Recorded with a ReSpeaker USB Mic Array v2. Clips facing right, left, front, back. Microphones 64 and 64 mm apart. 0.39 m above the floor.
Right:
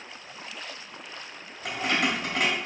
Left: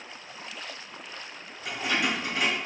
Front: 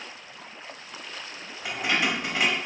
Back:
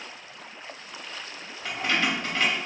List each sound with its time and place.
1.6 s keys jangling: 75° right, 1.2 m